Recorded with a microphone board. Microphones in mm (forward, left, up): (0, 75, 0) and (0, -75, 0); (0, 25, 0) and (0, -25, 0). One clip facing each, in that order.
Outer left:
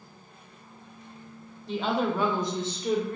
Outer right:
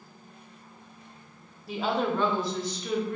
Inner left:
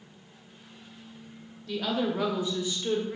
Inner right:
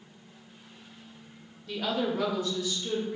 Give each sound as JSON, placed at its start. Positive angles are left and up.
{"t": 1.7, "sound": "a woman speaking", "side_deg": -10, "distance_m": 0.9}